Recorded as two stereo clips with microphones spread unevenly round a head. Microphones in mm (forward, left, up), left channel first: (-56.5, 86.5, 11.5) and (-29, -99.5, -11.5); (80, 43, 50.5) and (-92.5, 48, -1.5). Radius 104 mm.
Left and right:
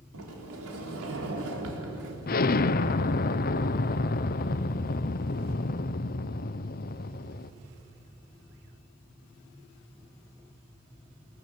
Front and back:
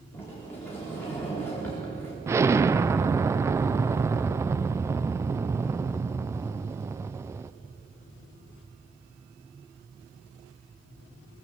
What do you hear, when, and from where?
0.1 s a sliding door: 80° right, 3.5 m
2.3 s an explosion: 90° left, 0.6 m